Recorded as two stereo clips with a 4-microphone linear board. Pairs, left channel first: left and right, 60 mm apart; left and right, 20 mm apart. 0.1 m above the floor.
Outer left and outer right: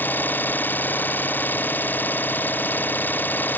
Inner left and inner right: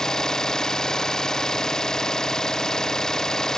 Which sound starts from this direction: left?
An engine running, at 0.0 s.